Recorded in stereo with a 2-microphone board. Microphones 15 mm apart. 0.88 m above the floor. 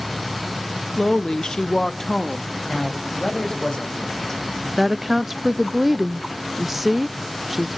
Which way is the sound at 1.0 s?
35° left (ahead or behind).